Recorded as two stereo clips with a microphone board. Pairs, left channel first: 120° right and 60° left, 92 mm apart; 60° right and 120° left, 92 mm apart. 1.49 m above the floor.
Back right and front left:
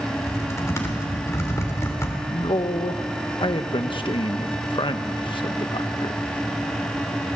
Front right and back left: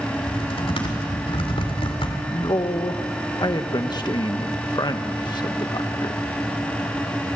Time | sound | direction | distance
0.2 | typing on a keyboard | 60° right | 3 m
2.3 | a man speaking | 95° right | 1.2 m